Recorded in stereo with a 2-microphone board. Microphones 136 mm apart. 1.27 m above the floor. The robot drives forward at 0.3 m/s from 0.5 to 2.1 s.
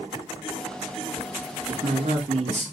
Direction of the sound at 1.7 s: 60° right (ahead or behind).